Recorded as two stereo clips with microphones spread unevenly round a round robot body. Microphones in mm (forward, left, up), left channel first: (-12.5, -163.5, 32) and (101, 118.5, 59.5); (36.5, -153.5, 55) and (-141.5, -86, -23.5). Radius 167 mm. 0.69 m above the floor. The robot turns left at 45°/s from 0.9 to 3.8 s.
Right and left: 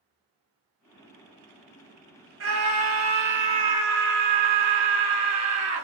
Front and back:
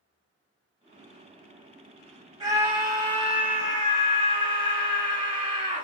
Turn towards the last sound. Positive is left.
turn(degrees=50)